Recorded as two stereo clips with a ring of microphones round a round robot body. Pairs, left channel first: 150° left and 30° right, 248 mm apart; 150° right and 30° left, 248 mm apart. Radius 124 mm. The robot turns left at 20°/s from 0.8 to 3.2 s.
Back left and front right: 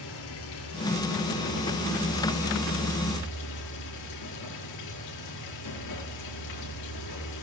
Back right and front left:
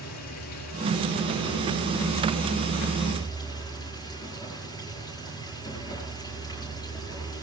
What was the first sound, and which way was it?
Running water, 175° right.